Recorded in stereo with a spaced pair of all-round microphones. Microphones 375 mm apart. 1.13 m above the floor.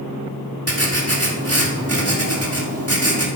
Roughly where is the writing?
Right.